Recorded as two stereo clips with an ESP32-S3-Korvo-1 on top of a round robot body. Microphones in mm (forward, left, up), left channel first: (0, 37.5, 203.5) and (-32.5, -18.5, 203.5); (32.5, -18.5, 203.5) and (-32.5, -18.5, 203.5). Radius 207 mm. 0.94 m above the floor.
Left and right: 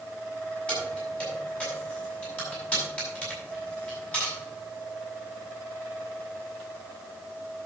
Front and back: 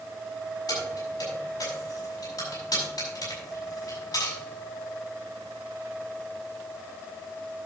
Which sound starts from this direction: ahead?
Keys jangling, at 0.7 s.